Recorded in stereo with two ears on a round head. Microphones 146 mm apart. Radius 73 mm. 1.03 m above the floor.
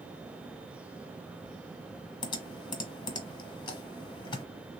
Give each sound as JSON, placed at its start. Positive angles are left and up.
{"t": 2.2, "sound": "typing on a keyboard", "side_deg": 25, "distance_m": 1.0}